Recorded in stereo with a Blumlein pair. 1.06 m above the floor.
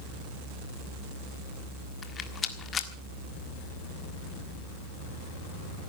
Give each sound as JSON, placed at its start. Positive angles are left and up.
{"t": 2.0, "sound": "a rattle", "azimuth_deg": 25, "distance_m": 1.5}